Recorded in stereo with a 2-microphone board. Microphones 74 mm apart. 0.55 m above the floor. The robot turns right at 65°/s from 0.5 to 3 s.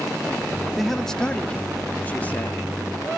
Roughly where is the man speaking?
Centre.